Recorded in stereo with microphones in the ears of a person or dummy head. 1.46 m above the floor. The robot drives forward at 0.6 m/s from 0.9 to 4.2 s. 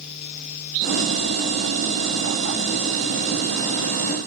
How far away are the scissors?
I don't hear scissors.